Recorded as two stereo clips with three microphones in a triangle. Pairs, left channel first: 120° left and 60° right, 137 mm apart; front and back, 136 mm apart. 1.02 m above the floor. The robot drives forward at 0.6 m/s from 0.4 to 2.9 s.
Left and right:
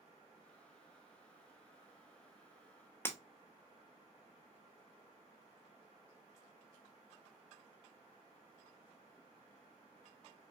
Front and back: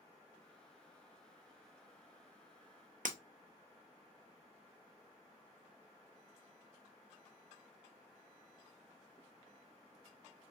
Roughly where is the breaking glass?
Behind.